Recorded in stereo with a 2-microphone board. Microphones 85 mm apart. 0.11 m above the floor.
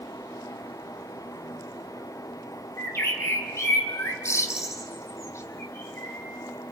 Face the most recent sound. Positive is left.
turn(degrees=35)  # may be behind; listen again after turning